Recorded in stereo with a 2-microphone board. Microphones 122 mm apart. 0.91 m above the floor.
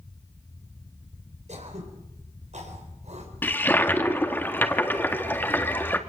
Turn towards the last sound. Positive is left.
turn(degrees=15)  # may be behind; listen again after turning